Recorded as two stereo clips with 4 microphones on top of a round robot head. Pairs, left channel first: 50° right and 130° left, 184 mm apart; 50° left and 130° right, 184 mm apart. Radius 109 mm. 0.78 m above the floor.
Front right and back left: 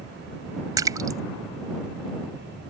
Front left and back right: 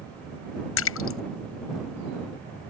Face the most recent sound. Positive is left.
turn(degrees=55)